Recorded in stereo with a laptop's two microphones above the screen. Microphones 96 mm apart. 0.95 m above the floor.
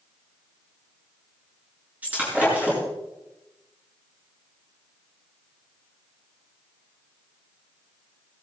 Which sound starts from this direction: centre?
Breaking glass, at 2.0 s.